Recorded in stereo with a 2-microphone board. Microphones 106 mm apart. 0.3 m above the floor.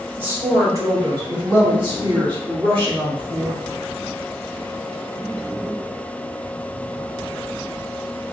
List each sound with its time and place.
0.2 s a woman speaking: 15° right (ahead or behind), 1.3 m; by 3.6 s 55° right (ahead or behind), 3.5 m